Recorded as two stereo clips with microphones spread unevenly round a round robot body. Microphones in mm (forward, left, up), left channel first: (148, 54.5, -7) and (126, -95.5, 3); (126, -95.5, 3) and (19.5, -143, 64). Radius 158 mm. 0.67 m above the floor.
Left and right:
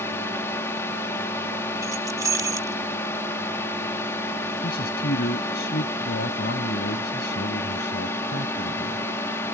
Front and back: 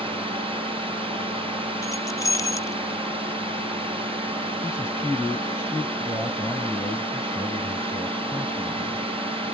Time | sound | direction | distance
0.0 | a drone | 140° left | ?
1.8 | keys jangling | 25° right | ?
4.6 | a man speaking | 115° left | ?